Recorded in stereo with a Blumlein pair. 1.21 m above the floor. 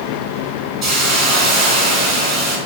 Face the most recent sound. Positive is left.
turn(degrees=-30)